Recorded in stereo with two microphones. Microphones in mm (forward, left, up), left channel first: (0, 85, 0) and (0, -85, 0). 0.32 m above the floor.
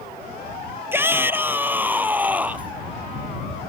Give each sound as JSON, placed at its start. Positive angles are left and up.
{"t": 0.9, "sound": "a shout", "side_deg": -15}